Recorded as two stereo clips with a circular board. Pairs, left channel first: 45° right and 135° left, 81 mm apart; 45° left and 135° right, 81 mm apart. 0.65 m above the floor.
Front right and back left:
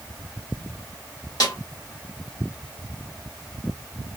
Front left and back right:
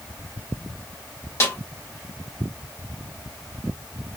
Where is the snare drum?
10° right, 1.9 m.